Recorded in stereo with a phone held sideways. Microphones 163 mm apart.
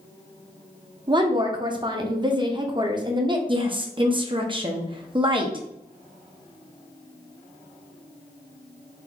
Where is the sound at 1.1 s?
30° right (ahead or behind), 0.7 m.